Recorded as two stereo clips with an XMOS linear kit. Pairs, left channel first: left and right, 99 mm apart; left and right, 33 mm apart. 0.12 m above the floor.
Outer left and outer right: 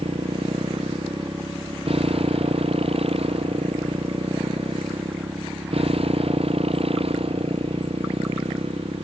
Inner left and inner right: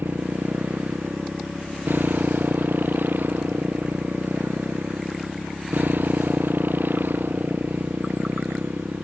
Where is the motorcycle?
80° right.